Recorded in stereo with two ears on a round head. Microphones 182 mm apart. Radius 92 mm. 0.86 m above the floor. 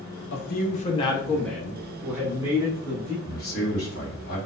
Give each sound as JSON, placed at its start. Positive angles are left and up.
{"t": 0.3, "sound": "a man speaking", "side_deg": 55, "distance_m": 0.5}
{"t": 3.2, "sound": "a man speaking", "side_deg": 45, "distance_m": 1.2}